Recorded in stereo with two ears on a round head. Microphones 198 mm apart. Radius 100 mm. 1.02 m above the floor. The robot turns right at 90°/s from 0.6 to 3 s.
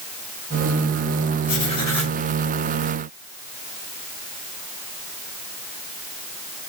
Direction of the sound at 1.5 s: 125° left.